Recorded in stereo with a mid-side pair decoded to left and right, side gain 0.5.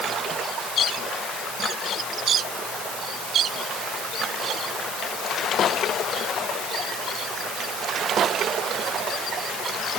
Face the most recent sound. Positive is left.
No sound to turn to.